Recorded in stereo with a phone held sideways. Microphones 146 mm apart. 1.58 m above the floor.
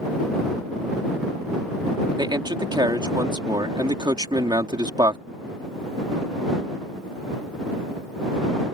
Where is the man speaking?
30° right (ahead or behind).